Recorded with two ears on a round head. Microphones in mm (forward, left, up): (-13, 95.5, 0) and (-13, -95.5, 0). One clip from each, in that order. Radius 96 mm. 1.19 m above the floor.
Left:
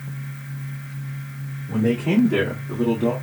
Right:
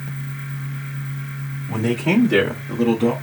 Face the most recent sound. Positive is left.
turn(degrees=-65)  # may be behind; listen again after turning